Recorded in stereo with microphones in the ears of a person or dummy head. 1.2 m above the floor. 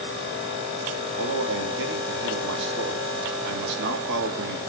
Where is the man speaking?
65° right (ahead or behind), 3 m.